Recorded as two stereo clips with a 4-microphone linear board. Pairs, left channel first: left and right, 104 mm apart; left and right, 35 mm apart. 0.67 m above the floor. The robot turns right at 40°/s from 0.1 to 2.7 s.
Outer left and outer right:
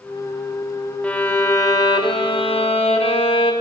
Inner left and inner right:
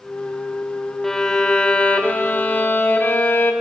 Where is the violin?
15° left, 0.6 m; by 3.5 s 80° left, 0.6 m.